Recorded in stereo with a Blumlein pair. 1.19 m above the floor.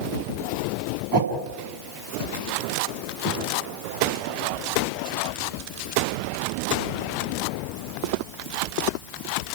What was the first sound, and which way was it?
A whoosh, 35° right.